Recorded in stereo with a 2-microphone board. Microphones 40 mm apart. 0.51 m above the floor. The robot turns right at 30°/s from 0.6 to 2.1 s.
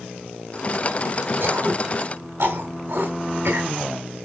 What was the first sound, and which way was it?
Throat clearing, 65° right (ahead or behind).